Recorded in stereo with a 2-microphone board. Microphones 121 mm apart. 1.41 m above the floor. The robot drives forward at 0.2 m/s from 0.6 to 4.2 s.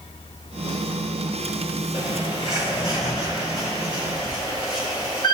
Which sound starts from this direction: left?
A bird, at 1.9 s.